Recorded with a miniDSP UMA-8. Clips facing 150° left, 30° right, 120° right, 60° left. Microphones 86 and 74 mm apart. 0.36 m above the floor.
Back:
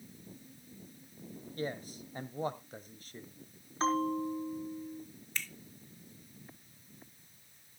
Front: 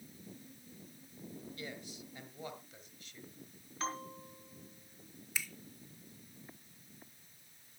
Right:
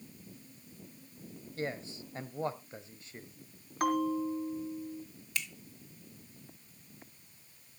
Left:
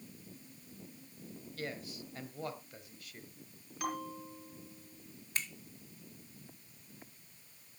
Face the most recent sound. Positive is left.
turn(degrees=50)